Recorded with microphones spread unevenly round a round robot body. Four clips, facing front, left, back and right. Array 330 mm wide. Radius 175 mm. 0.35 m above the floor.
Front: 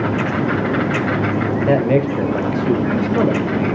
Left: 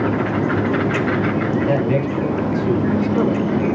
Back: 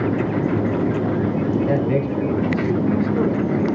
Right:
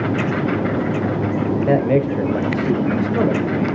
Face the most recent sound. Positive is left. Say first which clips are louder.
# right 2 dB, front 4 dB
turn(degrees=-35)